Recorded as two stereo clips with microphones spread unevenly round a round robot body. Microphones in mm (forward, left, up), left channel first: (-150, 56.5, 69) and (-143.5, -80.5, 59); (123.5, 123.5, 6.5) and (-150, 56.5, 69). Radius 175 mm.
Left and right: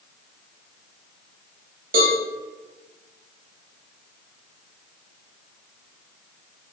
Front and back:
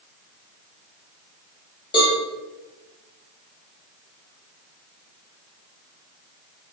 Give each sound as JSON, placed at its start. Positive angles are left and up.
{"t": 1.9, "sound": "a cowbell", "azimuth_deg": -70, "distance_m": 0.6}